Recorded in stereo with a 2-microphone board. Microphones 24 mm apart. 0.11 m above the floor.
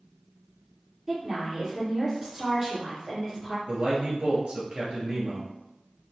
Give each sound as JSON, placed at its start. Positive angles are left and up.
{"t": 1.1, "sound": "a woman speaking", "side_deg": -25, "distance_m": 1.8}
{"t": 3.7, "sound": "a man speaking", "side_deg": -45, "distance_m": 1.7}